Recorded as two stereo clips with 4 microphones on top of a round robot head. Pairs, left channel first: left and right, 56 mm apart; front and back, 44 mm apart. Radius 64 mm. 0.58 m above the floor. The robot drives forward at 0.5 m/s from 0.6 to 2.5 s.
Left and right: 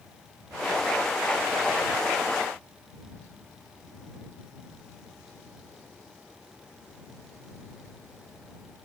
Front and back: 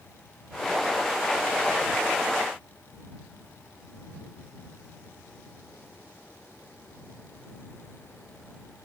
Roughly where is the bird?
I don't hear a bird.